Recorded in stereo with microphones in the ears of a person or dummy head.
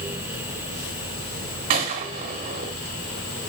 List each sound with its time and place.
1.7 s a gunshot: 25° right (ahead or behind), 0.9 m